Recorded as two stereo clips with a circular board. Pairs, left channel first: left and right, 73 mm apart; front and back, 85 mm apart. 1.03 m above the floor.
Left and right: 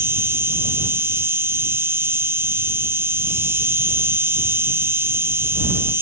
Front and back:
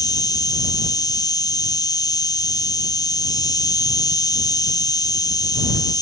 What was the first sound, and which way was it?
An insect, 35° right.